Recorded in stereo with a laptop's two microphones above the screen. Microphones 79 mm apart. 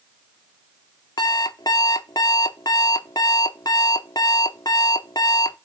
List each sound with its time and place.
1.2 s an alarm clock: 60° left (ahead or behind), 0.8 m